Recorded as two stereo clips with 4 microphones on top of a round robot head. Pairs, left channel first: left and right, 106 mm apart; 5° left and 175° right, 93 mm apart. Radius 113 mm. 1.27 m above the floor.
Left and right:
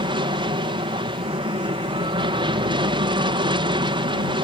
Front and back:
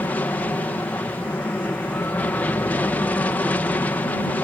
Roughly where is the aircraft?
Ahead right.